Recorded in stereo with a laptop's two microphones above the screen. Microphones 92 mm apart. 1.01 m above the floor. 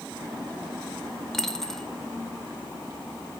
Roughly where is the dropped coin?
Centre.